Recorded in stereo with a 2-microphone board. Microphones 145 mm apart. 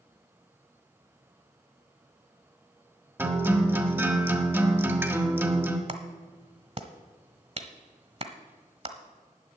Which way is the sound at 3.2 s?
15° right (ahead or behind).